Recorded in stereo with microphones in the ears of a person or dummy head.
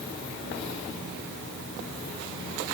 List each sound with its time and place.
Only background noise.